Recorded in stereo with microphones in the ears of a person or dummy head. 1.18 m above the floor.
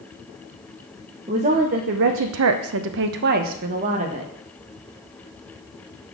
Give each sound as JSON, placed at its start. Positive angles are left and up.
{"t": 1.3, "sound": "a woman speaking", "side_deg": -30, "distance_m": 0.9}